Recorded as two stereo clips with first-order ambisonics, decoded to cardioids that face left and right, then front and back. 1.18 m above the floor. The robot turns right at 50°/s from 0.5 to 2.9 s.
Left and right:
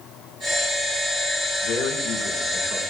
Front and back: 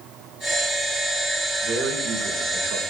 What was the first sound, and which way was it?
A man speaking, 130° left.